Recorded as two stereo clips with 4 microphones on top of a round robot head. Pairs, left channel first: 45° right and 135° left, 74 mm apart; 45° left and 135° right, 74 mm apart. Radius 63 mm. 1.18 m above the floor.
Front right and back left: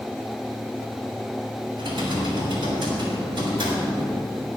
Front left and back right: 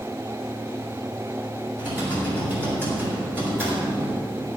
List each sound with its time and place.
1.8 s typing on a keyboard: 160° left, 6 m